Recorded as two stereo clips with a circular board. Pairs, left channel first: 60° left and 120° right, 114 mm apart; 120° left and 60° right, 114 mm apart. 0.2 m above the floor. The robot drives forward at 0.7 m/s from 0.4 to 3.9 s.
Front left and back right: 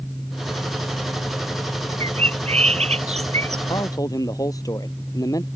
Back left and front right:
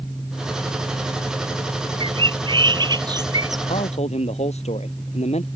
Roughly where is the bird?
Right.